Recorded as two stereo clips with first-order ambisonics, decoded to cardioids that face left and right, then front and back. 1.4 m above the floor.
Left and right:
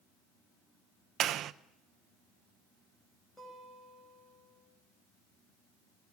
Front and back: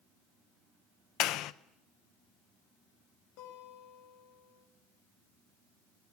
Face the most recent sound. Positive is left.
turn(degrees=5)